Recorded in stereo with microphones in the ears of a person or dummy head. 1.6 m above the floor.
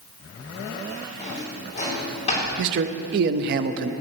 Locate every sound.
1.2 s a drawer: 35° left (ahead or behind), 3 m
2.6 s a man speaking: 55° right (ahead or behind), 0.6 m